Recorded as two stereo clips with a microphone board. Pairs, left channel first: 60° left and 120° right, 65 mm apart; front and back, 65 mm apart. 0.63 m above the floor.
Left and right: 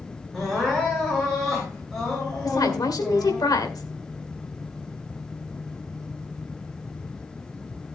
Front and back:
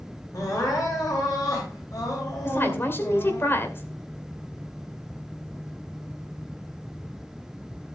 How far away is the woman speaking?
About 2 m.